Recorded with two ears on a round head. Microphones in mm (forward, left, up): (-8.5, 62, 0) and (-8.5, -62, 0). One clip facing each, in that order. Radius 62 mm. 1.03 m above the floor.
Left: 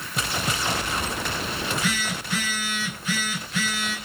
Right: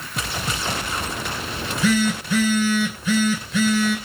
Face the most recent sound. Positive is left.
turn(degrees=-75)  # may be behind; listen again after turning